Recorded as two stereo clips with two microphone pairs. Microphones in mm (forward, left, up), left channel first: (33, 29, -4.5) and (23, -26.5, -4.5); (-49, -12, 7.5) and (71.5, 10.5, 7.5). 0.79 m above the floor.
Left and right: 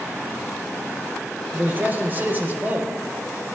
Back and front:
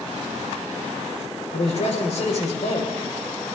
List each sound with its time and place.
1.5 s a man speaking: 155° right, 3.5 m